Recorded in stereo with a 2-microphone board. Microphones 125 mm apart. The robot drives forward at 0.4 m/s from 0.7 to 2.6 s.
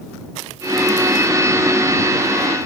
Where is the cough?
I don't hear a cough.